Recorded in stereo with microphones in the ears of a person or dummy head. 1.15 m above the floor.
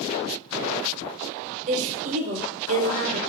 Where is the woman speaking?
40° right (ahead or behind), 0.6 m.